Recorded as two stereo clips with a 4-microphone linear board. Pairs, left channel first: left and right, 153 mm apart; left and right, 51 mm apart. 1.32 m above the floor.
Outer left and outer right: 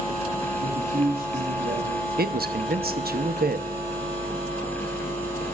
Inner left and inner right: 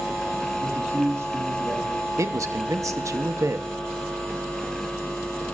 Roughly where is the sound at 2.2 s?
Right.